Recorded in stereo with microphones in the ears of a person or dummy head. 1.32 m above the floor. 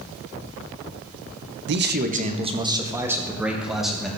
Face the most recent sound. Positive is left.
turn(degrees=0)  # may be behind; listen again after turning